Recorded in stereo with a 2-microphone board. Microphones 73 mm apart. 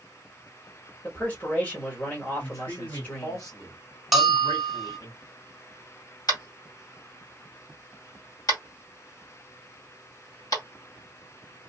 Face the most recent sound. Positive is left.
turn(degrees=60)  # may be behind; listen again after turning